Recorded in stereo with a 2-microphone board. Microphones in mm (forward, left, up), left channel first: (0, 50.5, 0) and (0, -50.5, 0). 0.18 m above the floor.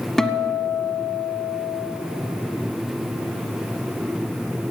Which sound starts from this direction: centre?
A guitar, at 0.2 s.